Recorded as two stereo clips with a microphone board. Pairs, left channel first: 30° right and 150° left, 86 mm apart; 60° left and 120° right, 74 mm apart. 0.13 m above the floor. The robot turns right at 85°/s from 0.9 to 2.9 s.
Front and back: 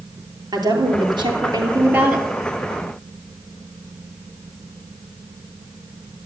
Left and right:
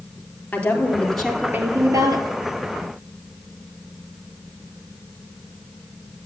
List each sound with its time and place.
0.5 s a woman speaking: 125° left, 3.5 m; by 2.3 s 120° right, 3.5 m